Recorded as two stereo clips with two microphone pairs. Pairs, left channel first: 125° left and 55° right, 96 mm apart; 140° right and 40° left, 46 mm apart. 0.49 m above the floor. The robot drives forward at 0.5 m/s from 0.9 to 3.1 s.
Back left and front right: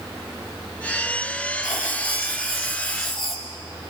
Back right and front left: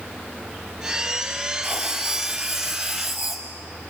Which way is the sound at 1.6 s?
115° left.